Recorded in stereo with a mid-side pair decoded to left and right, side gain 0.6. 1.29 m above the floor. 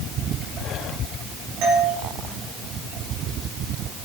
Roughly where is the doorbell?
Right.